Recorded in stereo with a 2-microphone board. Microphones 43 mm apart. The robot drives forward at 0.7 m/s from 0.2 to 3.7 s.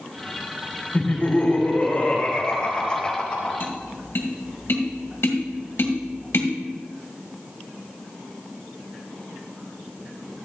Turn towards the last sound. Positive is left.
turn(degrees=70)  # may be behind; listen again after turning